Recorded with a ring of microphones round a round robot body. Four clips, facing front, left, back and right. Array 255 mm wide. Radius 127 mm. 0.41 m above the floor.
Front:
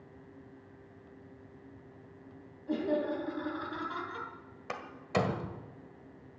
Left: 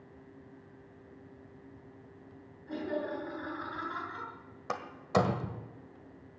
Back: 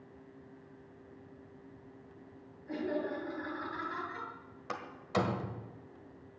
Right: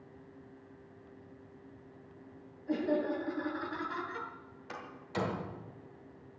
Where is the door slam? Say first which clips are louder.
Left 10 dB, front 1 dB; 70° left, 1.7 m.